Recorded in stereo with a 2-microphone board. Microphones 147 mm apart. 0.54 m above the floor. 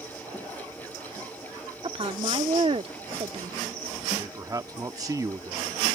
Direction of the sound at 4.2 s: 25° right (ahead or behind).